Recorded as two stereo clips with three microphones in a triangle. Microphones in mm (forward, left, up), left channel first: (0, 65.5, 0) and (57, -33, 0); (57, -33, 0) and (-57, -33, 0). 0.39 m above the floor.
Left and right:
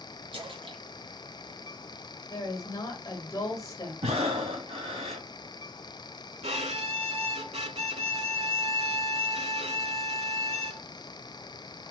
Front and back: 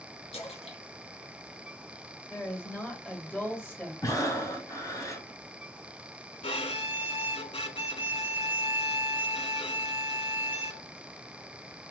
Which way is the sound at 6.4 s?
35° right.